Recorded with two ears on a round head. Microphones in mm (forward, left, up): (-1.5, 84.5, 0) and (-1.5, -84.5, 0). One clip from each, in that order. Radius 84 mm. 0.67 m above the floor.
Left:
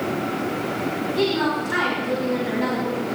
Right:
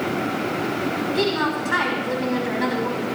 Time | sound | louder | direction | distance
1.1 | a woman speaking | left 1 dB | 30° right (ahead or behind) | 4 m